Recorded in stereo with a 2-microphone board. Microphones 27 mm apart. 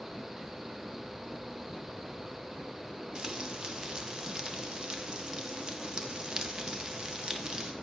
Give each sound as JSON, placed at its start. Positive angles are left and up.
{"t": 3.1, "sound": "frying", "side_deg": -30, "distance_m": 0.6}